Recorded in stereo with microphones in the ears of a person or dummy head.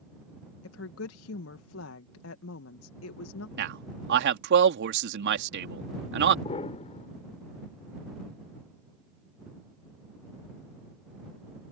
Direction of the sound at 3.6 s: 65° right (ahead or behind).